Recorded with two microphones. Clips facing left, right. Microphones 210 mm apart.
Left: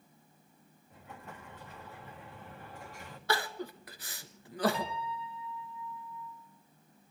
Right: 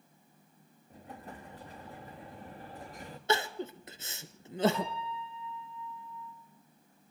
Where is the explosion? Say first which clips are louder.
Right 3 dB; 35° right (ahead or behind), 2.5 m.